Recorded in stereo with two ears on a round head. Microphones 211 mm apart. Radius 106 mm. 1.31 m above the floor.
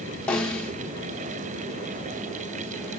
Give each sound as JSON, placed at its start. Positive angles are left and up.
{"t": 0.3, "sound": "a snare drum", "side_deg": 5, "distance_m": 1.3}